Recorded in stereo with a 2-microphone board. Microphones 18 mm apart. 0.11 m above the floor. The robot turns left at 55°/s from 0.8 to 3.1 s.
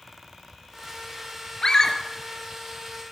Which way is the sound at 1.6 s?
35° left (ahead or behind).